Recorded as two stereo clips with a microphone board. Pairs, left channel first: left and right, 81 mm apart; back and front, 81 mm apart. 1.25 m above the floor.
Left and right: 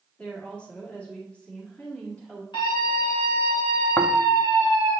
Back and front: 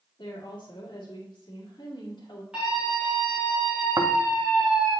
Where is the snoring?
30° left, 0.6 m.